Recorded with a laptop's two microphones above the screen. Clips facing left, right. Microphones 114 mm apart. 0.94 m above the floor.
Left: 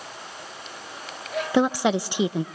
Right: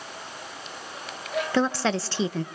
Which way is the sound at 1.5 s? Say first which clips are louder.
Left 4 dB; 15° left (ahead or behind).